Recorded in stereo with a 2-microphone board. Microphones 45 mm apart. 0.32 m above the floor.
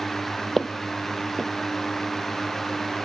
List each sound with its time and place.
0.6 s footsteps: centre (ahead or behind), 0.7 m